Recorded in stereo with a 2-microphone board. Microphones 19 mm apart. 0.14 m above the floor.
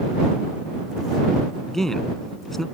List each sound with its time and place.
1.7 s a man speaking: 20° left (ahead or behind)